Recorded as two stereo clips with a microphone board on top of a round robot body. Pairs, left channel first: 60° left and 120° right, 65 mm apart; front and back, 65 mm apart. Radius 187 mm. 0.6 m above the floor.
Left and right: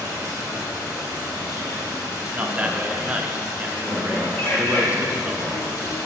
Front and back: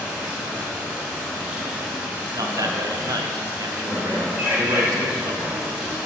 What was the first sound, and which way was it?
Running water, 105° left.